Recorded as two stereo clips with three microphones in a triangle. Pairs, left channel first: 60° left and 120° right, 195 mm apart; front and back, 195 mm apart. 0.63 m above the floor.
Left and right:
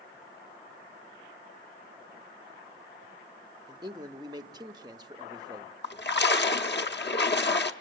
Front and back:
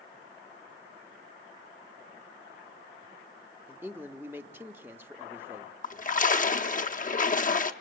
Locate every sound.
3.7 s a man speaking: 125° right, 0.9 m
5.8 s a splash: 45° left, 0.9 m